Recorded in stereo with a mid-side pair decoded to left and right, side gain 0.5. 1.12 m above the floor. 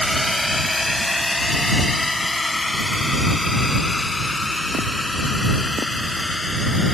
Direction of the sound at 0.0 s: 5° left.